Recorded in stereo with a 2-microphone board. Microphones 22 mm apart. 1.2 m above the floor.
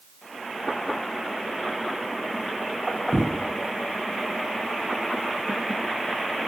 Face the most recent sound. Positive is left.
turn(degrees=-40)  # may be behind; listen again after turning